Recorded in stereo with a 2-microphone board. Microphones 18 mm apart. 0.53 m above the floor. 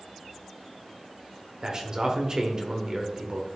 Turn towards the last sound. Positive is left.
turn(degrees=-35)  # may be behind; listen again after turning